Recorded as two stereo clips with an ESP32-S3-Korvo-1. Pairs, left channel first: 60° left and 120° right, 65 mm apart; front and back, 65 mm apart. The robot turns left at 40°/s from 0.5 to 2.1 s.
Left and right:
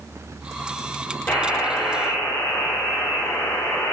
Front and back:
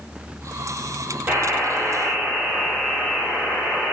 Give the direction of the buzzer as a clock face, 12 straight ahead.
8 o'clock.